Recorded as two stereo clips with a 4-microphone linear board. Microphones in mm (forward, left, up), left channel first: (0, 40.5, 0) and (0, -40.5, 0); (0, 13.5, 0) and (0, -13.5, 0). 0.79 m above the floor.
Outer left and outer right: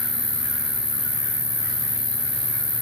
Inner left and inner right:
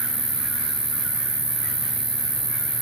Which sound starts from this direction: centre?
An insect, at 0.0 s.